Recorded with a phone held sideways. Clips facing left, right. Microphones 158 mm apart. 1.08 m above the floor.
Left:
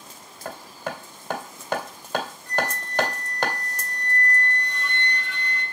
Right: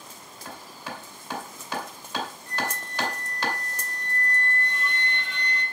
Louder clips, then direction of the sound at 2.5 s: Left 4 dB; 20° right (ahead or behind).